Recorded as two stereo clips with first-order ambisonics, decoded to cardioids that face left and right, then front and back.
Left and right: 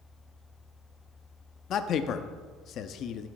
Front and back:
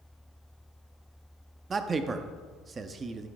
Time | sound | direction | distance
1.7 | a man speaking | 120° left | 0.6 m